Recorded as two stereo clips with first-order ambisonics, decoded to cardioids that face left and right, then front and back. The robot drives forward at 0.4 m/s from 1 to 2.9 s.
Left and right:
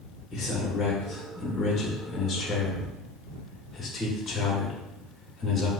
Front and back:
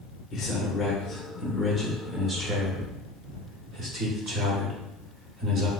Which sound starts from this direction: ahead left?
A man speaking, at 0.3 s.